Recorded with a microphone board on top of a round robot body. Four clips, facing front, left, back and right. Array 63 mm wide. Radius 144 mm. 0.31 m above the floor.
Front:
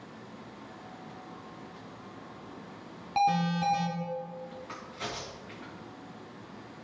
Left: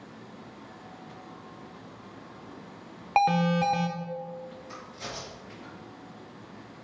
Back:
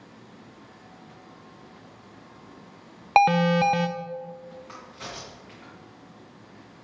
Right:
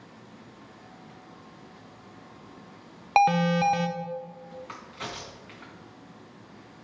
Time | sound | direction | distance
3.2 | an alarm | 165° right | 1.0 m
4.7 | a crack | 85° right | 3.5 m